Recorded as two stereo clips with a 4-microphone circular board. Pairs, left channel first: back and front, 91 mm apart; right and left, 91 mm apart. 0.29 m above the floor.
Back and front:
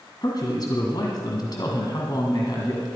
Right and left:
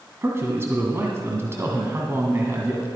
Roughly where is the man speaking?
Behind left.